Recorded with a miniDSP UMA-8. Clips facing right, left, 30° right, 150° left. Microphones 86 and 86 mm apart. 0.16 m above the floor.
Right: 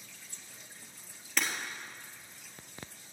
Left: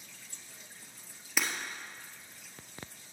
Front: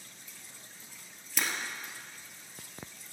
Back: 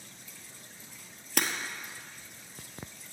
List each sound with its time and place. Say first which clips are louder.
1.4 s breaking glass: even, back 3 dB; 170° left, 1.3 m